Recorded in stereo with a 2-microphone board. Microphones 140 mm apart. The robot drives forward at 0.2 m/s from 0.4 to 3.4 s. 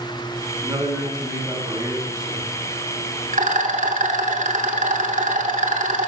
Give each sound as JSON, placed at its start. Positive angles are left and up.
{"t": 0.6, "sound": "a man speaking", "side_deg": -25, "distance_m": 2.0}
{"t": 3.3, "sound": "a rattle", "side_deg": -65, "distance_m": 0.7}